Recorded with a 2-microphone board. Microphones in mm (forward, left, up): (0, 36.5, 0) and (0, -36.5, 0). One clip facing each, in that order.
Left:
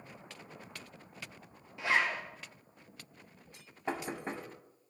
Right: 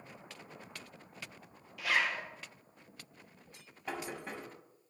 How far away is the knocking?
About 0.8 m.